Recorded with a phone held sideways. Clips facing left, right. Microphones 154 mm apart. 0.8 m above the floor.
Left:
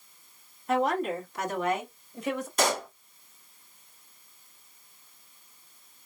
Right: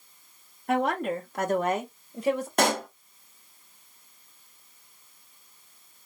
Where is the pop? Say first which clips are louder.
Even; 60° right (ahead or behind), 0.9 m.